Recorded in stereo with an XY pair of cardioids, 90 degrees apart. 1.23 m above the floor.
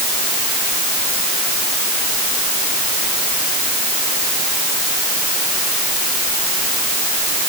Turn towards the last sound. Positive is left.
No sound to turn to.